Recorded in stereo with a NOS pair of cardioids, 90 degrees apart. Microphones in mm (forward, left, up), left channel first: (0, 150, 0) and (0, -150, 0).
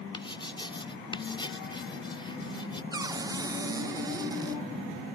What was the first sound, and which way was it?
Writing, 15° left.